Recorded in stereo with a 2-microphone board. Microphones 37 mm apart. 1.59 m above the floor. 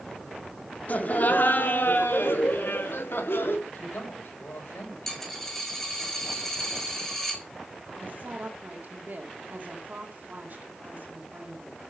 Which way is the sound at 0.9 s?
45° left (ahead or behind).